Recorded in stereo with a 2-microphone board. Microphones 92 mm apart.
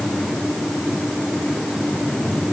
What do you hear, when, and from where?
Only background noise.